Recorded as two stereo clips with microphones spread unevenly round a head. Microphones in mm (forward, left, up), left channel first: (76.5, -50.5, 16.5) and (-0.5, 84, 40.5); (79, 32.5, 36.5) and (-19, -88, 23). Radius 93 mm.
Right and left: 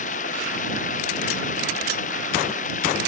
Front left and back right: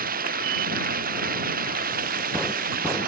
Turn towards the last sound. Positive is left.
turn(degrees=-105)